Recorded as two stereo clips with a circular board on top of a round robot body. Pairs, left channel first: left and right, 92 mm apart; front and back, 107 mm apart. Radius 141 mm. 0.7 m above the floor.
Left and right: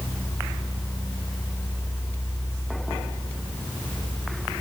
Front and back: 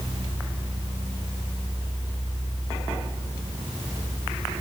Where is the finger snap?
No finger snap in this recording.